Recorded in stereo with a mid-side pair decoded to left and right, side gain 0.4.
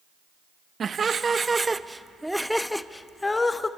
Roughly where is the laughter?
Ahead right.